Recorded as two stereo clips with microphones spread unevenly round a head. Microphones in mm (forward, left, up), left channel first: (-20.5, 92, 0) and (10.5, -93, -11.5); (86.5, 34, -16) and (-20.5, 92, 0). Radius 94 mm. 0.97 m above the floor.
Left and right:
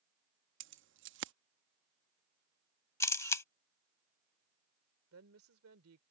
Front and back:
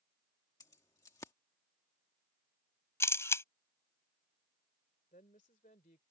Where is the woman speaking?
80° right.